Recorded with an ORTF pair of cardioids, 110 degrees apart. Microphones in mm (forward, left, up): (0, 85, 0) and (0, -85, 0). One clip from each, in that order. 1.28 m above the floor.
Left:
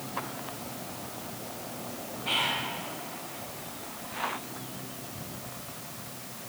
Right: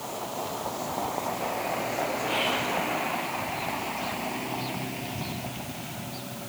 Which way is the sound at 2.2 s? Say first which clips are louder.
Left 1 dB; 70° left.